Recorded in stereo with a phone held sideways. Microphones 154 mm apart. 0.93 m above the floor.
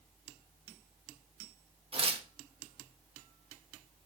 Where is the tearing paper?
40° right (ahead or behind), 1.4 m.